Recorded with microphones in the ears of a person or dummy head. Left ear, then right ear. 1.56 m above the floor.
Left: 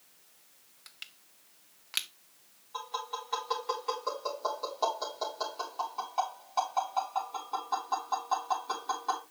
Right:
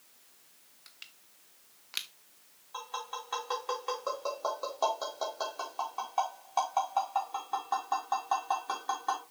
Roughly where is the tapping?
Centre.